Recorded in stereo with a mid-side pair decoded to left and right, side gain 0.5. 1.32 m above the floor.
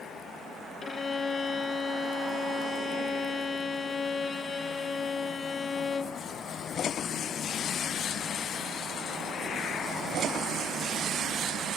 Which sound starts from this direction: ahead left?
A violin, at 0.8 s.